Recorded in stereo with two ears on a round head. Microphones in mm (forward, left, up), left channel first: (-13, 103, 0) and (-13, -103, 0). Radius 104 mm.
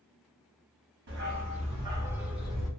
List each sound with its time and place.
1.1 s a dog barking: 50° right (ahead or behind), 0.7 m; by 2.7 s 5° left (ahead or behind), 1.1 m